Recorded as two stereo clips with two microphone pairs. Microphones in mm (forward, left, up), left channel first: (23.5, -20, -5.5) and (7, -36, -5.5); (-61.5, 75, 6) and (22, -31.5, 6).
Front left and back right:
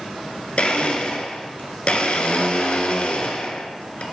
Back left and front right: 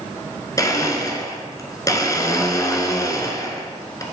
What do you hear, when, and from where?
0.6 s a blender: 65° left, 0.9 m